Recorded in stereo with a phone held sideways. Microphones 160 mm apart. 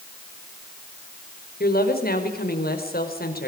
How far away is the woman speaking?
About 4.5 m.